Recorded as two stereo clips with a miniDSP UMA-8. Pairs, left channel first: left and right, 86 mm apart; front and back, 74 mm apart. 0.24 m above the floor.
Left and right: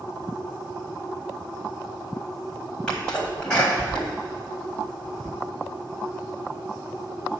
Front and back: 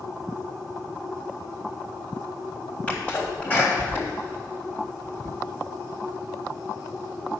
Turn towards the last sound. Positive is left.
turn(degrees=30)